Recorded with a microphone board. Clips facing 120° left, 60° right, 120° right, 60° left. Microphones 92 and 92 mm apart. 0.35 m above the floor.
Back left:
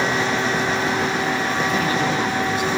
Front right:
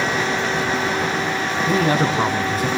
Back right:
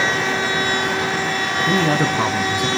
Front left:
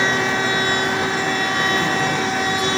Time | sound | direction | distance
1.7 | a man speaking | 105° right | 3.5 m